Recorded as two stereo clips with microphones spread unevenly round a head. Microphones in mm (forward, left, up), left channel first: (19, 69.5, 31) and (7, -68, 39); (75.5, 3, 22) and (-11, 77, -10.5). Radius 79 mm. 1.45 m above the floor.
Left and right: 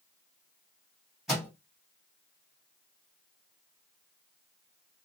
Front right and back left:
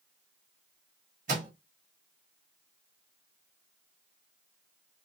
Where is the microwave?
175° left, 1.3 m.